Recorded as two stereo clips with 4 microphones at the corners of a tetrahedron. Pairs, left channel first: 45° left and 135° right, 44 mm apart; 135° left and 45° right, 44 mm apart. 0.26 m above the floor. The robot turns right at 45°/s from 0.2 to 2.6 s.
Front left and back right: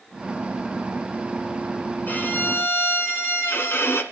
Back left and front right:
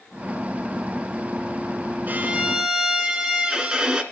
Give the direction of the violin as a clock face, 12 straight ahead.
12 o'clock.